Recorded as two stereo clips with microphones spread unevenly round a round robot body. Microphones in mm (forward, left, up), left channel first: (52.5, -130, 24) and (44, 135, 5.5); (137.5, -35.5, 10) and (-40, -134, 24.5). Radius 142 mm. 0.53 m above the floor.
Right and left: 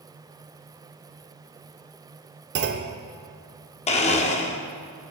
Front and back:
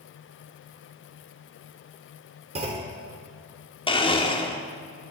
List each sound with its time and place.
2.5 s a clunk: 140° left, 0.5 m
3.9 s a blender: 25° right, 0.9 m